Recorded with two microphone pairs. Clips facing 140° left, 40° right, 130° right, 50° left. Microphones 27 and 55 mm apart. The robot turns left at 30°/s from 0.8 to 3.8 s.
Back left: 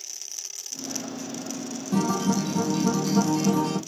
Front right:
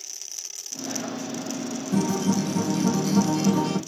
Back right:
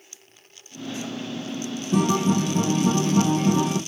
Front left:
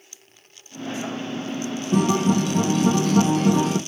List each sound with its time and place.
1.9 s a guitar: 90° left, 2.5 m; by 3.8 s 35° left, 2.5 m